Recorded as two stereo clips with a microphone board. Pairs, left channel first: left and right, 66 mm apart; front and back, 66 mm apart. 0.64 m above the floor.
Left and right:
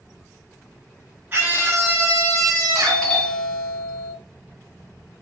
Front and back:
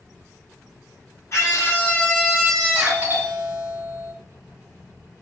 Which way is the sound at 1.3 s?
40° right.